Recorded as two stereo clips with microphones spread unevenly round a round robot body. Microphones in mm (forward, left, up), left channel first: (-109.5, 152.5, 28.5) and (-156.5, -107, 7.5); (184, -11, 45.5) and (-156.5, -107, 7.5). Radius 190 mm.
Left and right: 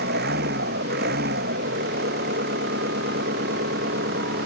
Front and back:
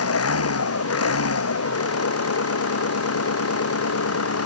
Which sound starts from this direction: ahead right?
An engine running, at 0.0 s.